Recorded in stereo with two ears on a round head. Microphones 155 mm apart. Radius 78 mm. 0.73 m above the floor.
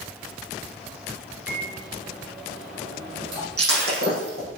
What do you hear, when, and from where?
1.5 s a microwave: 55° right (ahead or behind), 8 m
3.6 s breaking glass: 65° right (ahead or behind), 7.5 m